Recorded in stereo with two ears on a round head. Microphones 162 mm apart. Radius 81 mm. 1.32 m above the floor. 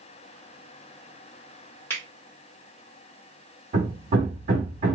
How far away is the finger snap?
About 1.4 m.